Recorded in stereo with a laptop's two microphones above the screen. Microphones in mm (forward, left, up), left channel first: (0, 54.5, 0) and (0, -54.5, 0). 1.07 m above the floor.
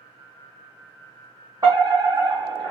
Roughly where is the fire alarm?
Right.